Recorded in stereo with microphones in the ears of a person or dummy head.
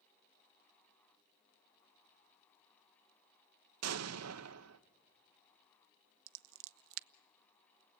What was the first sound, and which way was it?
An explosion, 75° right (ahead or behind).